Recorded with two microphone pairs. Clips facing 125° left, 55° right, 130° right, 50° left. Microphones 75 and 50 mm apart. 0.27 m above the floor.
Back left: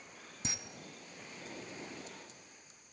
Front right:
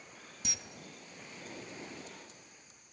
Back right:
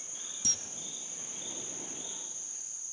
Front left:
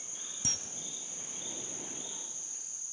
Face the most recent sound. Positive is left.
turn(degrees=75)